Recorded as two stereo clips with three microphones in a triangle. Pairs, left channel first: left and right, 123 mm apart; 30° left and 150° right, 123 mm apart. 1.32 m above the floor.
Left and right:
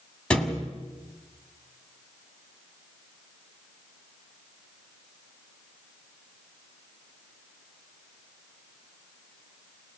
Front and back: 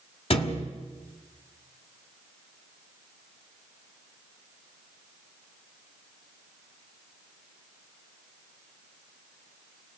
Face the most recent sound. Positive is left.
turn(degrees=10)